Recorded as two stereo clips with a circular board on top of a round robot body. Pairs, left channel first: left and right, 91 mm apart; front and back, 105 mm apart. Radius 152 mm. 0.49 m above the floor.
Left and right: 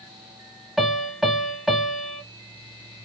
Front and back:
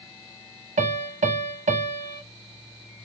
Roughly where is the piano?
Behind.